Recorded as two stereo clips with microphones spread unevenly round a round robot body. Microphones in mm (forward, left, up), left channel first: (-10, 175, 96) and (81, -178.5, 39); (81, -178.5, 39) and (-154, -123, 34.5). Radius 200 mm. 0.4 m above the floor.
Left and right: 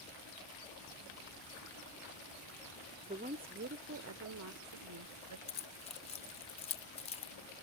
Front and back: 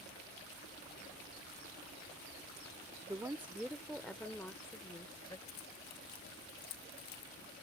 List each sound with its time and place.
3.1 s a woman speaking: 125° right; by 5.4 s 85° right
5.5 s keys jangling: 25° left